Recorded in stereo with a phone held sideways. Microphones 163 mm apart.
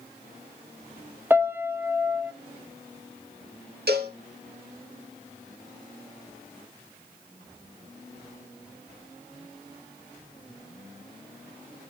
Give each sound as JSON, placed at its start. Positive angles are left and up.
{"t": 1.3, "sound": "a piano", "side_deg": -15, "distance_m": 0.7}
{"t": 3.9, "sound": "a cowbell", "side_deg": -80, "distance_m": 1.5}